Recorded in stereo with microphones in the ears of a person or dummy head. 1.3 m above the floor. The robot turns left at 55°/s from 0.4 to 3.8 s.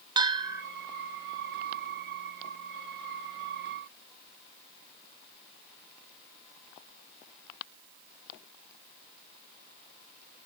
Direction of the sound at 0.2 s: 25° right (ahead or behind).